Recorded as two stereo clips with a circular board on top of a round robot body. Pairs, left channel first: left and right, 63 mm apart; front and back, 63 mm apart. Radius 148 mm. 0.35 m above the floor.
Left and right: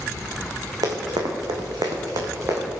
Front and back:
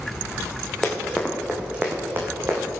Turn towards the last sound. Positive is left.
turn(degrees=-135)